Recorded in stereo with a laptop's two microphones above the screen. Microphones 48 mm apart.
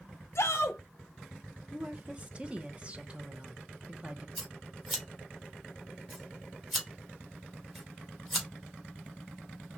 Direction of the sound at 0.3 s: 60° left (ahead or behind).